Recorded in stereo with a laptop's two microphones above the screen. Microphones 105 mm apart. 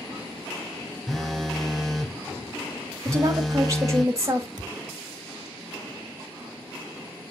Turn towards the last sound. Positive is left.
turn(degrees=-45)  # may be behind; listen again after turning